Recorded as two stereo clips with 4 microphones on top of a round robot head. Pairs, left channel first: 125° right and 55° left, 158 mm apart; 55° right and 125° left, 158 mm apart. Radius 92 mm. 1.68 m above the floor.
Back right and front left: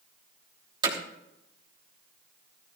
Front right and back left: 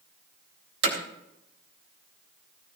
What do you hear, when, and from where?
0.8 s hammering: 115° left, 3 m